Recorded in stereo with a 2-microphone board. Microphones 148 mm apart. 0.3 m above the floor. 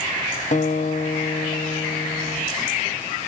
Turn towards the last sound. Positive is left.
turn(degrees=55)  # may be behind; listen again after turning